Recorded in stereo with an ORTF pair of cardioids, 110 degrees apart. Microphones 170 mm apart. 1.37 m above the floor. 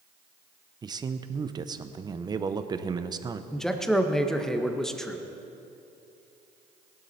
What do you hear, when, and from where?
0.8 s a man speaking: 25° right, 0.8 m
3.5 s a man speaking: straight ahead, 1.2 m